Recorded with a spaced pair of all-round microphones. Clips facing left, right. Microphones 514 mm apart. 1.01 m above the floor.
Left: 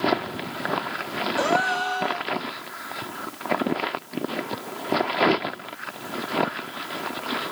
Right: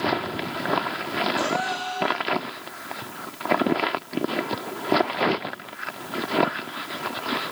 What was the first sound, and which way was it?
A gasp, 70° left (ahead or behind).